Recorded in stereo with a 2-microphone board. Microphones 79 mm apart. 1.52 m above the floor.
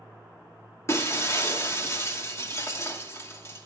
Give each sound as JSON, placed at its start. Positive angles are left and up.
{"t": 0.9, "sound": "breaking glass", "side_deg": 35, "distance_m": 2.0}